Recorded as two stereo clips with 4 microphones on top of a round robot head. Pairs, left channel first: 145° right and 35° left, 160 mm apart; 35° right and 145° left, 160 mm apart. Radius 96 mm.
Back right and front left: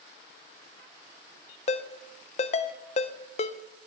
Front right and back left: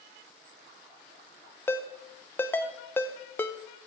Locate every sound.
1.7 s a ringtone: 110° right, 0.5 m